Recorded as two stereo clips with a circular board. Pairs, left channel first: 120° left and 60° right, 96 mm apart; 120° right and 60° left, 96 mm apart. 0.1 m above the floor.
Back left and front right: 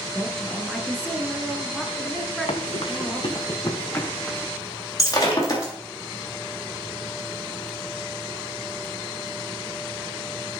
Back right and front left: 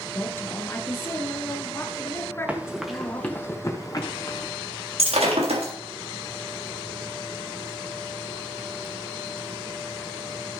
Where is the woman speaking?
160° right, 1.2 m.